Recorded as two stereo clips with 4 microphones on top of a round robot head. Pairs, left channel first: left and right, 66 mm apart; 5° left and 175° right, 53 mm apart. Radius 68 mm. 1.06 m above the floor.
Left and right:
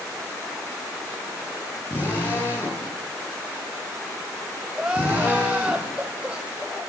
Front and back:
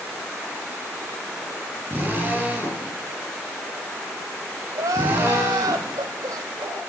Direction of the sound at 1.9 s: 140° left.